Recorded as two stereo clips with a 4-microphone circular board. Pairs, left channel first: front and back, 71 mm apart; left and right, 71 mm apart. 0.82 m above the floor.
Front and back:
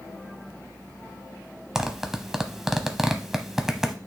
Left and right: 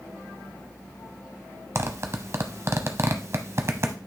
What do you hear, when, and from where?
1.8 s a zipper: 100° right, 0.8 m